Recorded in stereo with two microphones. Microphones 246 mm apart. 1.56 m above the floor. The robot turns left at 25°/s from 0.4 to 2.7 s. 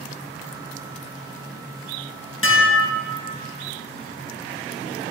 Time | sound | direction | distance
2.4 | dishes clattering | 60° left (ahead or behind) | 1.3 m